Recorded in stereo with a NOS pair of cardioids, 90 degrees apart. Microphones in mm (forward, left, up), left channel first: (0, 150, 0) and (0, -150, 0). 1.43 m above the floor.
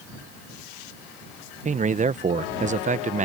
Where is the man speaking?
25° right.